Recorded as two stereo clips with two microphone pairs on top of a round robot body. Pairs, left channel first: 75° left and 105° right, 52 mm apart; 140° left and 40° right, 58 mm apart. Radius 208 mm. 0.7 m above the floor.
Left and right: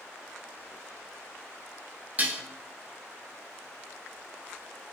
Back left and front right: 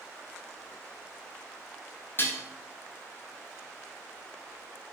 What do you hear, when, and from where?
2.2 s dishes clattering: 170° right, 0.6 m